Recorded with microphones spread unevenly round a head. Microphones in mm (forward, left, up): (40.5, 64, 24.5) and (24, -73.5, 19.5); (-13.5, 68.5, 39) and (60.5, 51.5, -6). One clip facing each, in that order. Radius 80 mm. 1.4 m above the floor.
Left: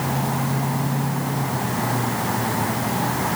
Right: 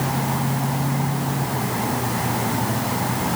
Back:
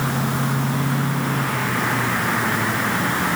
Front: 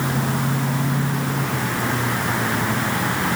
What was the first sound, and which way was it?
Only background noise.